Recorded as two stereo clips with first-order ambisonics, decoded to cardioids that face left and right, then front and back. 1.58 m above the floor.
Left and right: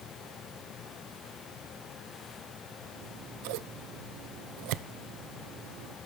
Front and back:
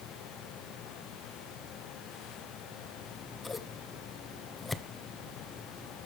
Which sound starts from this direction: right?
Scissors, at 3.0 s.